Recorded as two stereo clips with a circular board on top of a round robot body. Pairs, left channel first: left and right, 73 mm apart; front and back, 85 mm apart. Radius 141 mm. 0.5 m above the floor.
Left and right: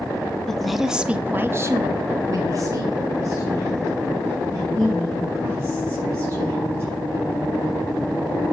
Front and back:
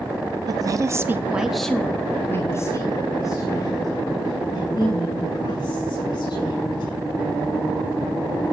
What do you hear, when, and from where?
0.5 s a woman speaking: 175° left, 1.5 m; by 7.0 s 40° right, 7 m